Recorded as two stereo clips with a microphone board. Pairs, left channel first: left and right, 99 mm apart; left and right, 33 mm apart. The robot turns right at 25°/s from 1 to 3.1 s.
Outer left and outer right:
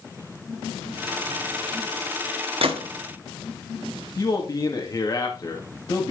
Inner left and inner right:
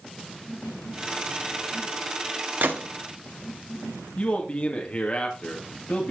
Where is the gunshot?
70° right (ahead or behind), 1.7 m; by 2.9 s 75° right (ahead or behind), 1.7 m.